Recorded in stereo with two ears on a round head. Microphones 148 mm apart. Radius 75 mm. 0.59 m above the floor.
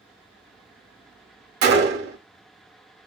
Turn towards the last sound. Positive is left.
turn(degrees=-60)  # may be behind; listen again after turning